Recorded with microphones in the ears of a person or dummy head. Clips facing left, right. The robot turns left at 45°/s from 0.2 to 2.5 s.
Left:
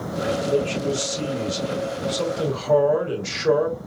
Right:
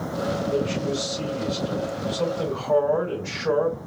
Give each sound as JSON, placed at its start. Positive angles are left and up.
{"t": 0.5, "sound": "a man speaking", "azimuth_deg": 145, "distance_m": 3.0}